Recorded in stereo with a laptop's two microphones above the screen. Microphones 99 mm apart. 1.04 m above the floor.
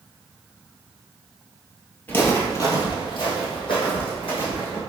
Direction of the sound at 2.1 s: 20° left (ahead or behind).